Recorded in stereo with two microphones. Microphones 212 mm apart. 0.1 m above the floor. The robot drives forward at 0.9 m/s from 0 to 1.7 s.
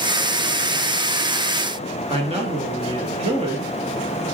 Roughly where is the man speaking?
Right.